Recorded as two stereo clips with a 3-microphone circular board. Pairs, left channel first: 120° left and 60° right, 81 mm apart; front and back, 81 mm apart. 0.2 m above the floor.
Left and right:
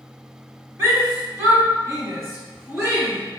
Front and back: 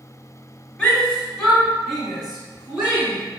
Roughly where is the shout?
Ahead right.